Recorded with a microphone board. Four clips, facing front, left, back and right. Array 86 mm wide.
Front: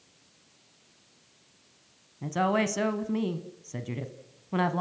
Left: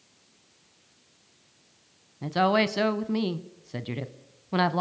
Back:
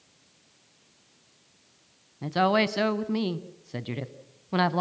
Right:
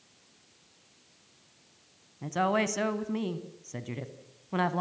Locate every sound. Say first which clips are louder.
2.2 s a woman speaking: left 4 dB, back 3 dB; 130° left, 1.0 m